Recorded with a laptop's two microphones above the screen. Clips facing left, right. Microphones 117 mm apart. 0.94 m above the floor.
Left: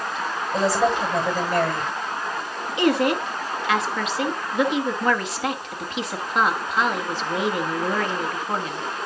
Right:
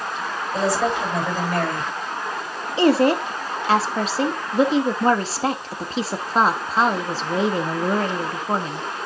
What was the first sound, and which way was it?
A woman speaking, centre (ahead or behind).